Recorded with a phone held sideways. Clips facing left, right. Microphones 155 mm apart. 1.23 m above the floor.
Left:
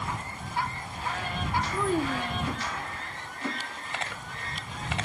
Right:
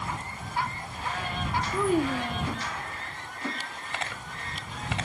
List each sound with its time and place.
1.7 s a child speaking: 15° right (ahead or behind)